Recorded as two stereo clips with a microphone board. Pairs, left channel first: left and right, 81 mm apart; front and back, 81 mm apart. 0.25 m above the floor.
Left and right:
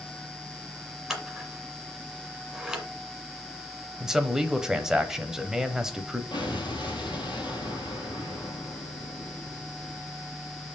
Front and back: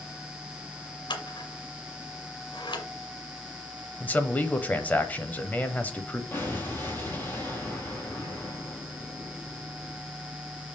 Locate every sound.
1.1 s scissors: 10° right, 1.9 m
4.0 s a man speaking: 25° right, 0.9 m
6.3 s an explosion: 65° left, 2.5 m